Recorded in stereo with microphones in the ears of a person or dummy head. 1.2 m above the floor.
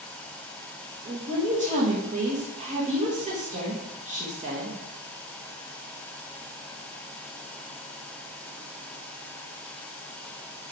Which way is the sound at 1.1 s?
35° right (ahead or behind).